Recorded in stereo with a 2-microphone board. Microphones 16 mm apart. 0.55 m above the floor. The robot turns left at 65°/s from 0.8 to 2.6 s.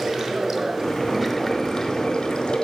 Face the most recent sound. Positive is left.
turn(degrees=70)